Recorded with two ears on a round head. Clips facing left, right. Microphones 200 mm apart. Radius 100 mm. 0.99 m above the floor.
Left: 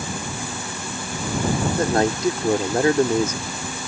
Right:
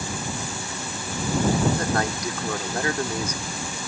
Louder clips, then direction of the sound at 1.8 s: Left 6 dB; 25° left (ahead or behind).